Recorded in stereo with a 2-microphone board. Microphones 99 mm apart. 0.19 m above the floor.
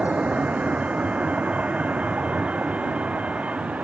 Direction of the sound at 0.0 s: 15° right (ahead or behind).